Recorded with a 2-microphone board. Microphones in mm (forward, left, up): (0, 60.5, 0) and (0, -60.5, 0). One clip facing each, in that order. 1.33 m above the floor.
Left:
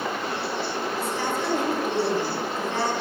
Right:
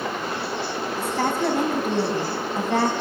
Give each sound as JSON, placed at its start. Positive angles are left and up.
{"t": 1.0, "sound": "a woman speaking", "side_deg": -60, "distance_m": 3.0}